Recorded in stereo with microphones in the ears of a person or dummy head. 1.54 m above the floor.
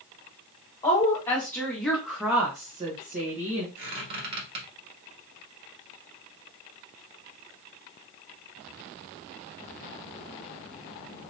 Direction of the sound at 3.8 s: 60° right (ahead or behind).